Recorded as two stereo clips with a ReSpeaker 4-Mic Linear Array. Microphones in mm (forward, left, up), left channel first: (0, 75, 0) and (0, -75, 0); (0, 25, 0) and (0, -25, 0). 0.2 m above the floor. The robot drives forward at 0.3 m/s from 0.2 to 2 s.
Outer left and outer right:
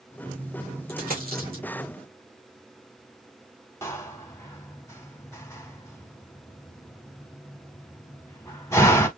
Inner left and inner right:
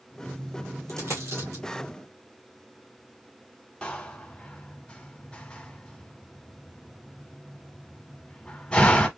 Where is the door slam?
20° left (ahead or behind), 1.0 m.